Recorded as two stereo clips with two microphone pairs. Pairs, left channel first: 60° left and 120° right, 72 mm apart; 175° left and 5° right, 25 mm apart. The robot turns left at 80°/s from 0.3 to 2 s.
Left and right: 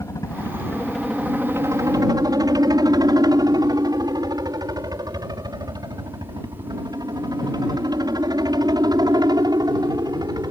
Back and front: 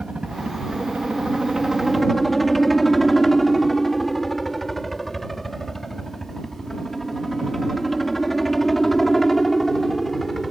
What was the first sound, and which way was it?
A helicopter, 30° left.